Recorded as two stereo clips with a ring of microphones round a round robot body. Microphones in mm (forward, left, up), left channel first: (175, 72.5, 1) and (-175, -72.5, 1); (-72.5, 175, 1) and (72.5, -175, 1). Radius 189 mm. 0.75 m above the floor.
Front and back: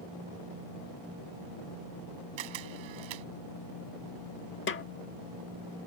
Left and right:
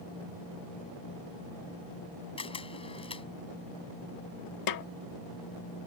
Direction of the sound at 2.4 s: 170° right.